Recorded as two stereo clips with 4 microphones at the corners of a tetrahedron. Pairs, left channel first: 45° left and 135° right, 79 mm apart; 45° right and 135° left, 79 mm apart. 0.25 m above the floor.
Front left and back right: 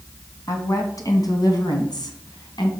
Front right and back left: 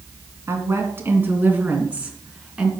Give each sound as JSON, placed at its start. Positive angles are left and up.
{"t": 0.5, "sound": "a woman speaking", "azimuth_deg": 85, "distance_m": 2.5}